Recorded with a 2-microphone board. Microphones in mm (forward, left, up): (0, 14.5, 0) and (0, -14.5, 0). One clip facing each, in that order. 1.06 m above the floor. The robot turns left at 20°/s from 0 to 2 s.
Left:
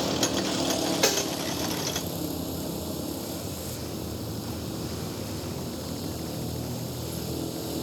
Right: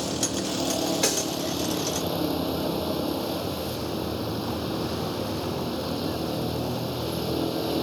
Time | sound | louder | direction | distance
0.0 | a vehicle | left 1 dB | 10° left | ?
1.0 | a snare drum | left 1 dB | 10° left (ahead or behind) | ?